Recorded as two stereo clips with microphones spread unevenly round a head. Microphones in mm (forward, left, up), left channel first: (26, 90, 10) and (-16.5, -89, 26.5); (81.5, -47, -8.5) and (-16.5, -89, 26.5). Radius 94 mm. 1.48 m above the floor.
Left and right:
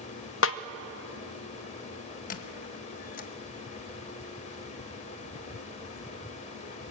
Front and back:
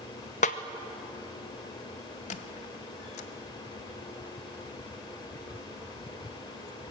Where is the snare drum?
60° left, 0.8 m.